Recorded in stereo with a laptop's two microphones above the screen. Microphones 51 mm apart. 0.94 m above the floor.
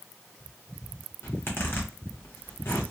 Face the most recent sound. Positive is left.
turn(degrees=50)  # may be behind; listen again after turning